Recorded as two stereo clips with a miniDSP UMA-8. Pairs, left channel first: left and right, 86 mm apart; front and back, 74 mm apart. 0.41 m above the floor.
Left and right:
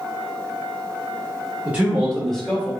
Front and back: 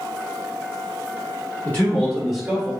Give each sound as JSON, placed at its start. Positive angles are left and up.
{"t": 1.6, "sound": "a man speaking", "azimuth_deg": -45, "distance_m": 1.1}